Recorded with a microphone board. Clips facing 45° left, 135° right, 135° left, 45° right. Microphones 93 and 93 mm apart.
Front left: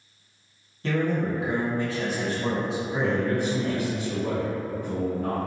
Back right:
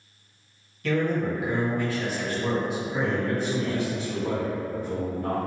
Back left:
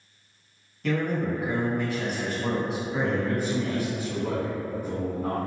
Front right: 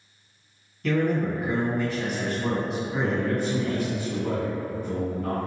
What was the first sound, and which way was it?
A man speaking, 50° left.